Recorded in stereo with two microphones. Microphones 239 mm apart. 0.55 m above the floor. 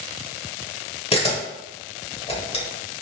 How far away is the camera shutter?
About 1.2 m.